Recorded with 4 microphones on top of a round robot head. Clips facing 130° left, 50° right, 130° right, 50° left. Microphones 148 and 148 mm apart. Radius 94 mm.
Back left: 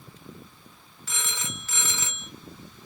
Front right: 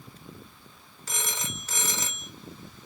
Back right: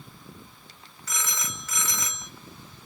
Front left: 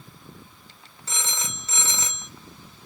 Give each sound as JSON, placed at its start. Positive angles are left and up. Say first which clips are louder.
{"t": 1.1, "sound": "a phone ringing", "louder": "front right 1 dB, front left 1 dB", "azimuth_deg": -10, "distance_m": 0.6}